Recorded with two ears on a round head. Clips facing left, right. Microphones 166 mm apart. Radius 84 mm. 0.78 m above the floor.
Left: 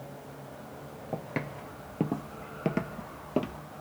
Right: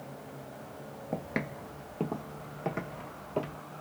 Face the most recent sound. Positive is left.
turn(degrees=55)  # may be behind; listen again after turning